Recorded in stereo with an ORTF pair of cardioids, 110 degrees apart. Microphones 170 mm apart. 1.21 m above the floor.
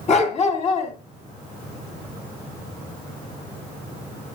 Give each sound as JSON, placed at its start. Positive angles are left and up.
{"t": 0.1, "sound": "a dog barking", "azimuth_deg": 45, "distance_m": 2.5}